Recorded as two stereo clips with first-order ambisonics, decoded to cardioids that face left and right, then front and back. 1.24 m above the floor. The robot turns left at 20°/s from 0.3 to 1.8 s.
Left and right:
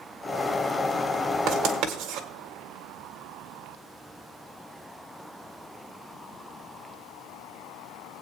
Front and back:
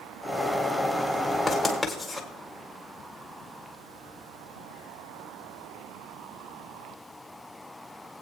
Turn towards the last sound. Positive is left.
turn(degrees=-85)